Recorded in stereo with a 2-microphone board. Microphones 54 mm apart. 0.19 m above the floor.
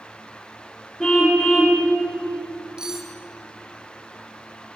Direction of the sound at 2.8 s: 10° right (ahead or behind).